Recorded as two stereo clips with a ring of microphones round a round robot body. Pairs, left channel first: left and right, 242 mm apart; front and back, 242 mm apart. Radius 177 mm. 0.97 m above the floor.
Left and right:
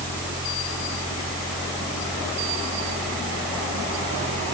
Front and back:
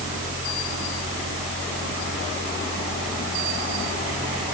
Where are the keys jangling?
No keys jangling in this recording.